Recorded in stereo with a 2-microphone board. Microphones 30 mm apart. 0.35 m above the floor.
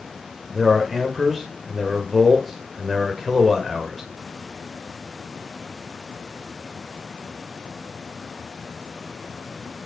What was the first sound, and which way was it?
A man speaking, 5° right (ahead or behind).